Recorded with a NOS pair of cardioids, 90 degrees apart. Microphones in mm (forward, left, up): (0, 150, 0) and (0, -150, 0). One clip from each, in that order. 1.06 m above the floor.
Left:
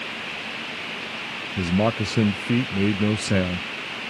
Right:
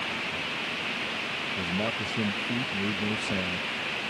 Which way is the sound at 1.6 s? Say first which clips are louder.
Left 10 dB; 50° left.